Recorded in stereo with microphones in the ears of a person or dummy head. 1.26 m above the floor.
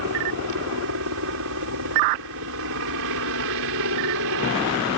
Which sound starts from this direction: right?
A helicopter, at 0.0 s.